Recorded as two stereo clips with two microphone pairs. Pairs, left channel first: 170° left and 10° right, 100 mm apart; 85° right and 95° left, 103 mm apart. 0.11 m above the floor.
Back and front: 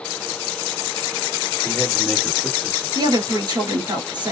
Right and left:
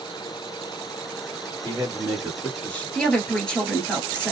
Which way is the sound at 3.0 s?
5° right.